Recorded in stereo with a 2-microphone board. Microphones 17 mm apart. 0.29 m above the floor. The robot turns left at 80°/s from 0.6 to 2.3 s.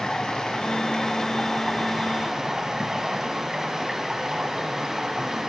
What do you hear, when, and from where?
0.0 s running water: 90° left, 1.1 m; by 5.5 s 45° right, 1.1 m